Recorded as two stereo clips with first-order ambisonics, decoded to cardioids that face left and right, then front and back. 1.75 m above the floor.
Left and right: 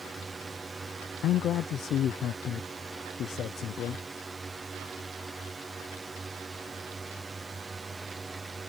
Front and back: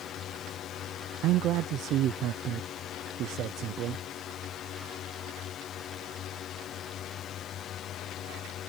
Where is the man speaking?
135° left.